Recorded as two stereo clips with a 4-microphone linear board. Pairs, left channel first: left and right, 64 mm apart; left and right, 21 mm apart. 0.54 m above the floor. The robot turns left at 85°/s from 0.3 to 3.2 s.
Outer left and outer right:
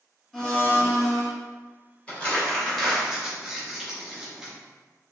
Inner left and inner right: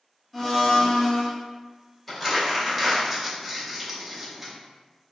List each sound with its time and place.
0.3 s a blender: 175° left, 1.1 m; by 1.3 s 90° left, 1.1 m
2.1 s crumpling: 20° left (ahead or behind), 0.7 m; by 4.5 s 10° right (ahead or behind), 0.7 m